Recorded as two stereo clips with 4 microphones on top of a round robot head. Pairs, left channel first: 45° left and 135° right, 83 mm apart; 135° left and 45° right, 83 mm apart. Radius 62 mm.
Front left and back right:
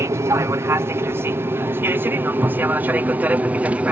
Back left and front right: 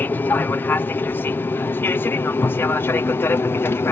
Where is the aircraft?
170° right; by 3.9 s 165° left.